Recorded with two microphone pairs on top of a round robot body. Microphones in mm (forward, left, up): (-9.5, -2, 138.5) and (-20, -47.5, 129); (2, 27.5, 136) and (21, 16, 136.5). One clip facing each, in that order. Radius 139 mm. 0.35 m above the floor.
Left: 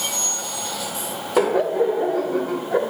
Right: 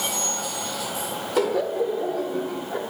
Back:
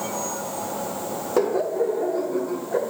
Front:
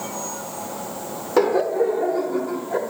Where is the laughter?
15° left, 1.2 m; by 2.9 s 45° left, 1.7 m.